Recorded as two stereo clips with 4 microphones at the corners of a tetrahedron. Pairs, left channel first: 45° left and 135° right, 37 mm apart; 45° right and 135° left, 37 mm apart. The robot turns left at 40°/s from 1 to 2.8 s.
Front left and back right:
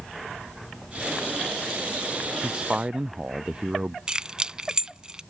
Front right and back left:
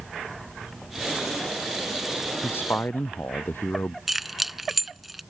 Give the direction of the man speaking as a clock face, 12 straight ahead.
2 o'clock.